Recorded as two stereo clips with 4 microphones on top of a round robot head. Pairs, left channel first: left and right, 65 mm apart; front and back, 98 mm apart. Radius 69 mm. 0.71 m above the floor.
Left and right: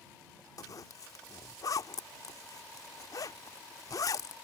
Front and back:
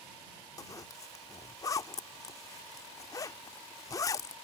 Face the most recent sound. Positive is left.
turn(degrees=55)